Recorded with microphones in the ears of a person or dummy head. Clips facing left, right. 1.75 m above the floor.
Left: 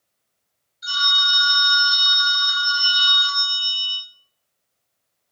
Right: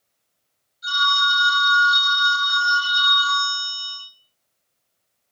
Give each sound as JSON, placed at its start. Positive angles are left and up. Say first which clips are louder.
{"t": 0.8, "sound": "a phone ringing", "louder": "right 5 dB", "side_deg": 25, "distance_m": 1.0}